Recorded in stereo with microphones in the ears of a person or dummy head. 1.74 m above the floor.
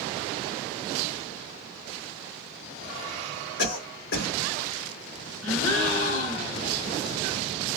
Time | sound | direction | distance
3.6 | a cough | 65° left (ahead or behind) | 1.5 m
5.4 | a gasp | 25° left (ahead or behind) | 1.8 m